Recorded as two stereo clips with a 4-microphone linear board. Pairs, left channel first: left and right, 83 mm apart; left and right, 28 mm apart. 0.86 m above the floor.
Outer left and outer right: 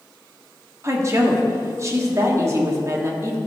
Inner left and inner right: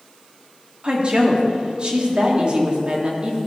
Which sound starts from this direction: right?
A woman speaking, at 0.8 s.